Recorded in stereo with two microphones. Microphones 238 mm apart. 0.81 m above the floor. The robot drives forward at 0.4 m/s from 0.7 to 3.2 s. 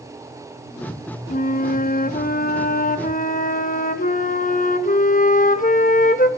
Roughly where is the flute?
Left.